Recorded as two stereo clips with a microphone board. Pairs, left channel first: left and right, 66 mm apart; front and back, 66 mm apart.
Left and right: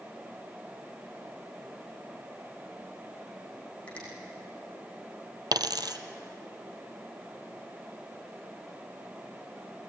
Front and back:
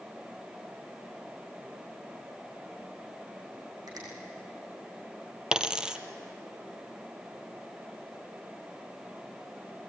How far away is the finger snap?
About 8 m.